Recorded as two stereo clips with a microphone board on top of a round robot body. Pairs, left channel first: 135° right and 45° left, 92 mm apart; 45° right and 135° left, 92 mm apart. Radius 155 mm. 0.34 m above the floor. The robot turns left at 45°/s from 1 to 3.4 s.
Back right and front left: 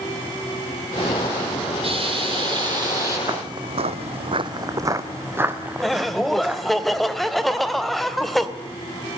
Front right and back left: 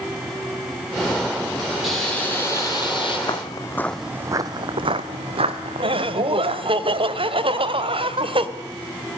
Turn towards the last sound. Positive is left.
turn(degrees=135)